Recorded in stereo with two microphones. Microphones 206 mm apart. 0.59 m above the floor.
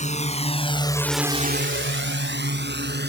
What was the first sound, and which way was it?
A drone, 35° left (ahead or behind).